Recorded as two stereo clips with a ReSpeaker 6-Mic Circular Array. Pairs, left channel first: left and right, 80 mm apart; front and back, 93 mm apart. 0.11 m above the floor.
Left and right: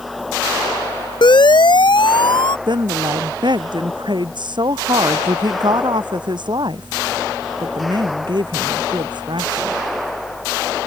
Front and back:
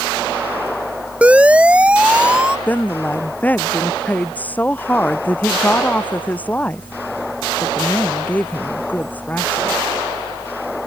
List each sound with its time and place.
1.2 s a siren: 105° left; by 2.6 s 100° left
2.7 s a woman speaking: 75° right